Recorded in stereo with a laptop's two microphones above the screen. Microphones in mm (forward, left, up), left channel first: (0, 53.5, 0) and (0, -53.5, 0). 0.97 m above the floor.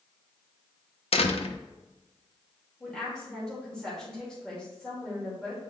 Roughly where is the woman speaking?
Centre.